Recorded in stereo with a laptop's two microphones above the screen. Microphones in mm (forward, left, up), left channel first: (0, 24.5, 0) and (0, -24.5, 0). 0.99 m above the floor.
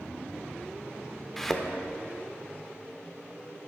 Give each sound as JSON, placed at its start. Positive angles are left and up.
{"t": 1.4, "sound": "a thud", "side_deg": 5, "distance_m": 0.7}